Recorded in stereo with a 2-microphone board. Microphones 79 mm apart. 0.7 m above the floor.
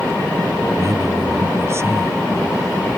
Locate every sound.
0.8 s a man speaking: 40° right (ahead or behind); by 3.0 s 30° right (ahead or behind)